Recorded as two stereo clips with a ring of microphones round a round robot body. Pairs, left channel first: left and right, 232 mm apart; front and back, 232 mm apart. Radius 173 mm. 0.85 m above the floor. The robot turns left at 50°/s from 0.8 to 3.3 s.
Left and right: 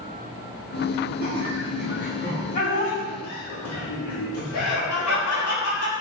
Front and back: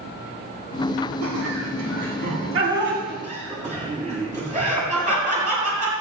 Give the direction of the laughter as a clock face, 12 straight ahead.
4 o'clock.